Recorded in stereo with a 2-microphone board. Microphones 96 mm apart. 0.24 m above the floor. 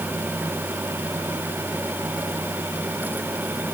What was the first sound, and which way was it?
Only background noise.